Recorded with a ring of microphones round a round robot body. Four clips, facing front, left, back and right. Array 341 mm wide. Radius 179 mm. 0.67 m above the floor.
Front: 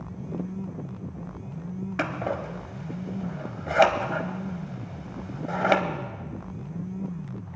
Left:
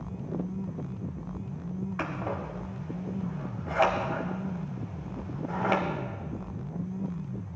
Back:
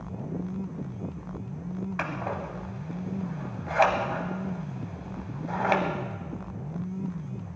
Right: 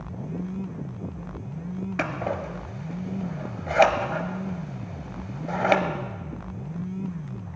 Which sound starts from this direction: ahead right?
Scissors, at 2.0 s.